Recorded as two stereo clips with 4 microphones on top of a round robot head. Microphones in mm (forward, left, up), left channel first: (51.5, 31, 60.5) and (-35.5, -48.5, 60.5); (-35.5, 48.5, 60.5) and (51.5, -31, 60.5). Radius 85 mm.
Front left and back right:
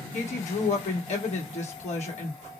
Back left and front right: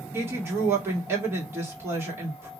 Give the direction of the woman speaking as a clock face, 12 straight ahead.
11 o'clock.